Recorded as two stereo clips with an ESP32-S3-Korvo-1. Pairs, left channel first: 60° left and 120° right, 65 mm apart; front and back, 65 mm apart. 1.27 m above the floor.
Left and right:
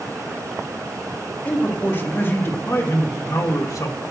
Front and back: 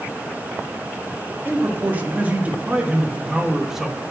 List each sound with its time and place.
1.4 s a man speaking: 120° left, 2 m; by 4.1 s 90° left, 1.3 m